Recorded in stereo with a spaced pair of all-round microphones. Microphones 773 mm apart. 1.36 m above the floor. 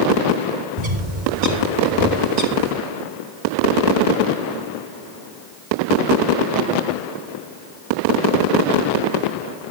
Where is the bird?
75° right (ahead or behind), 4.5 m.